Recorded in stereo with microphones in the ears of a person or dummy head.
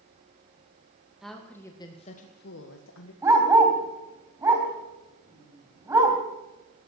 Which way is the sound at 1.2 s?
Centre (ahead or behind).